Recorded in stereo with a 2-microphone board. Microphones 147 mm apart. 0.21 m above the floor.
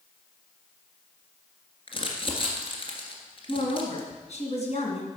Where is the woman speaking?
50° left (ahead or behind), 2.5 m.